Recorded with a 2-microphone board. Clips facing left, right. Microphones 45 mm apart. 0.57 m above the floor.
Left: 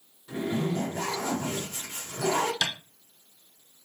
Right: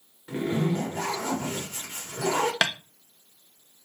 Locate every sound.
0.3 s a zipper: 40° right (ahead or behind), 1.5 m
2.6 s tapping: 80° right, 0.5 m